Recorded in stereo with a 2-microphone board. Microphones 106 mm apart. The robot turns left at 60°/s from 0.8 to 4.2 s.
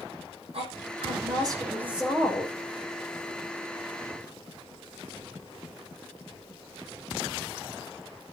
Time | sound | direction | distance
0.5 | a woman speaking | 100° right | 5.5 m